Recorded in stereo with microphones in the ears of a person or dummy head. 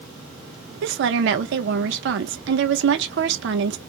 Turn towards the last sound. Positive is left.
turn(degrees=-65)  # may be behind; listen again after turning